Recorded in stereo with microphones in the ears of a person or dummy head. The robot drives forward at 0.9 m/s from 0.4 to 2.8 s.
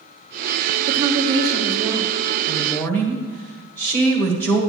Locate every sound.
0.9 s a woman speaking: 40° right (ahead or behind), 0.7 m; by 2.1 s 15° right (ahead or behind), 1.6 m
2.5 s a woman speaking: 10° left (ahead or behind), 1.3 m